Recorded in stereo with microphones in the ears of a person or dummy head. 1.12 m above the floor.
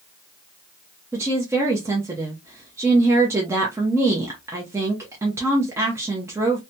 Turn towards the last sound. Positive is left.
turn(degrees=-15)  # may be behind; listen again after turning